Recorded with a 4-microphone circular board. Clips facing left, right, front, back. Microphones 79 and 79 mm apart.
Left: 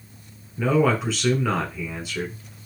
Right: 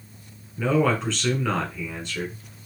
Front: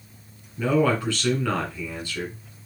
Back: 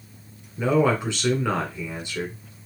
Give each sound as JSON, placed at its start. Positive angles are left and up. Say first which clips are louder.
{"t": 0.6, "sound": "a man speaking", "louder": "left 1 dB, back 1 dB", "azimuth_deg": 165, "distance_m": 1.2}